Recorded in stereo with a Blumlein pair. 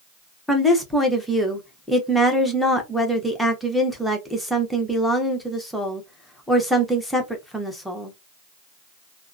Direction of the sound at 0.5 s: Straight ahead.